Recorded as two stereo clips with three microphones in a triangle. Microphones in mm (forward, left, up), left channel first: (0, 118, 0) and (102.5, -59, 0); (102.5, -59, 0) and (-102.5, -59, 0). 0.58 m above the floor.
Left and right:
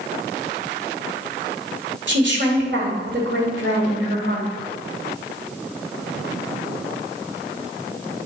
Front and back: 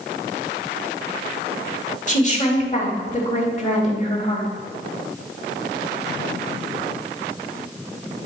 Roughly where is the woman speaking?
Ahead right.